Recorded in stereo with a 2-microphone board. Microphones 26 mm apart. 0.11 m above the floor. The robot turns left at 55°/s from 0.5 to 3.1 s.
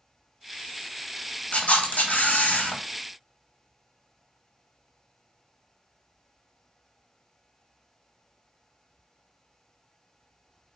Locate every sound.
1.5 s a camera shutter: 130° left, 1.1 m; by 2.8 s 60° left, 1.1 m